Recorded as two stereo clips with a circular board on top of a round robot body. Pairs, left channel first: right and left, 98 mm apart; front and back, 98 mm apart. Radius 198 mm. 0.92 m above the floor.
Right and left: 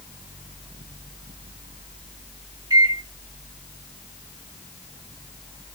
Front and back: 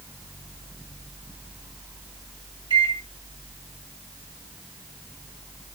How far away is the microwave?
About 1.3 m.